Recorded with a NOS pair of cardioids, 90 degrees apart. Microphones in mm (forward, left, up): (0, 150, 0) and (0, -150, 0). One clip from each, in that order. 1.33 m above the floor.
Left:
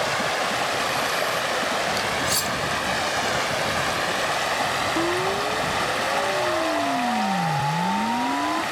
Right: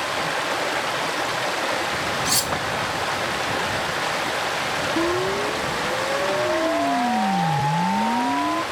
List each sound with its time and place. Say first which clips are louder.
2.2 s cutlery clinking: right 1 dB; 25° right
5.0 s a siren: right 1 dB; 20° right